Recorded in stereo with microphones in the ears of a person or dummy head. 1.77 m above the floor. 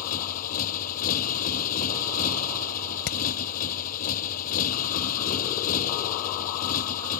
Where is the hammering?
65° left (ahead or behind).